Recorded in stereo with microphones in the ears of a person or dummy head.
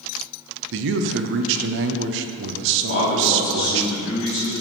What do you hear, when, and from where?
0.7 s a man speaking: 70° right (ahead or behind), 0.6 m
2.9 s a man speaking: 55° left (ahead or behind), 2.5 m